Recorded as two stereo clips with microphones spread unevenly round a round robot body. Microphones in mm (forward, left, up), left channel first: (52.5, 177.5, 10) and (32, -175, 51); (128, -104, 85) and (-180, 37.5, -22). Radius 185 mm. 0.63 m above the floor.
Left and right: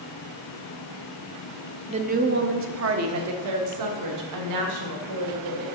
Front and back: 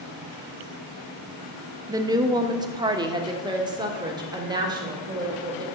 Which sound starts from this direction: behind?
A woman speaking, at 1.9 s.